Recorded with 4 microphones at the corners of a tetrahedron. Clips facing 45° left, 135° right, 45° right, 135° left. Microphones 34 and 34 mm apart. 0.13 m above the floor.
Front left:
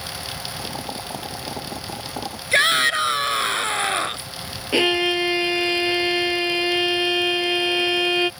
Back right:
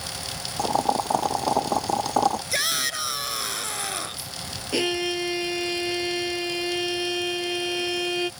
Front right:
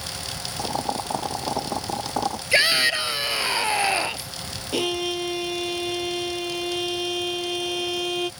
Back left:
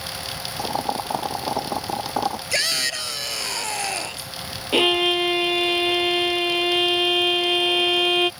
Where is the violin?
95° left.